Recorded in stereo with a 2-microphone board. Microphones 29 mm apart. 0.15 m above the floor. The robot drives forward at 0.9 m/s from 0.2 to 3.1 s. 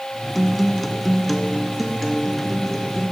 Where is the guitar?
5° left (ahead or behind), 0.6 m; by 3.1 s centre (ahead or behind), 2.5 m.